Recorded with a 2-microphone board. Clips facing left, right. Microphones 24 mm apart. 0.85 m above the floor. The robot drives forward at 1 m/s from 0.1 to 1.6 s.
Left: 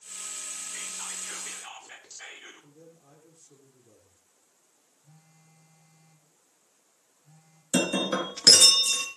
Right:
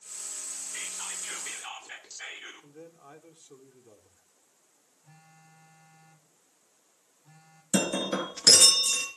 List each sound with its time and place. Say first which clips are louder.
0.7 s whispering: right 2 dB; 10° right (ahead or behind), 3.5 m; by 2.7 s 15° right (ahead or behind), 2.5 m
2.6 s a man speaking: right 5 dB; 70° right (ahead or behind), 2.5 m
5.0 s a phone buzzing: right 4 dB; 50° right (ahead or behind), 3.5 m
7.7 s breaking glass: left 2 dB; 15° left (ahead or behind), 3.5 m